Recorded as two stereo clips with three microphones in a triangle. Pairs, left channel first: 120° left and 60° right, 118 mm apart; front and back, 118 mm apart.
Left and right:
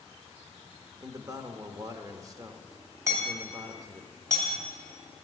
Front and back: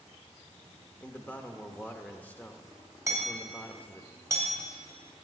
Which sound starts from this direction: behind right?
Hammering, at 3.1 s.